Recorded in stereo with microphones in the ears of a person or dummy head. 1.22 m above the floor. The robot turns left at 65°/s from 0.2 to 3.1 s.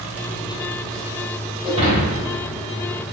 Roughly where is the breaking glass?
Right.